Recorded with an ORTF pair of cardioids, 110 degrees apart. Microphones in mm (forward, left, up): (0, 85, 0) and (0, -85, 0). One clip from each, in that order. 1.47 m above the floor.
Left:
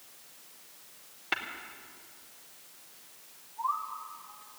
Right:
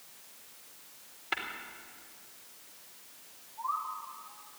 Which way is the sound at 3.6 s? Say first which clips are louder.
Left 2 dB; 25° left.